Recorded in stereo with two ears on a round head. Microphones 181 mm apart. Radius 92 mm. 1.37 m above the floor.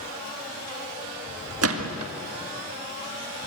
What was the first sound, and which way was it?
A gunshot, 85° right.